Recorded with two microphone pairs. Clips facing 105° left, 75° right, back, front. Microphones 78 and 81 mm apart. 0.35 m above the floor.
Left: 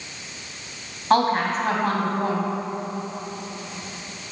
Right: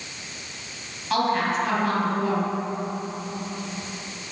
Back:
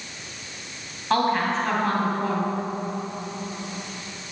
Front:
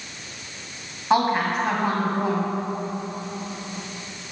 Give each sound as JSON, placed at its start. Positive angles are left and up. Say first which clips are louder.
{"t": 1.1, "sound": "a woman speaking", "louder": "left 3 dB, front 1 dB", "azimuth_deg": 70, "distance_m": 2.5}